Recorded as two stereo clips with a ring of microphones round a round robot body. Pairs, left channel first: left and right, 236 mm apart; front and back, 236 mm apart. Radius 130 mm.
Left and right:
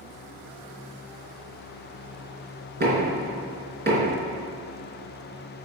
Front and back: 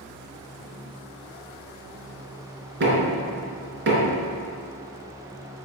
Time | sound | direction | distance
2.8 | knocking | 135° right | 4 m